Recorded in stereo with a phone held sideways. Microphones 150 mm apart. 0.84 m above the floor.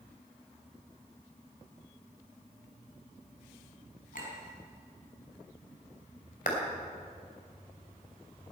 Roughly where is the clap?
Left.